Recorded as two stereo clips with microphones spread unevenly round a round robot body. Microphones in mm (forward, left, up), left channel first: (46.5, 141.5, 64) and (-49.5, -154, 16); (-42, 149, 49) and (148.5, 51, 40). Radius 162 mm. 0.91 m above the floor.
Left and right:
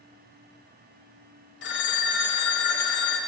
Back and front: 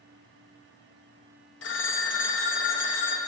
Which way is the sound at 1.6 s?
130° left.